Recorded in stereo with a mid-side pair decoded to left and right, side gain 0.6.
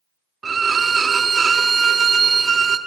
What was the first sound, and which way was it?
A violin, 30° right.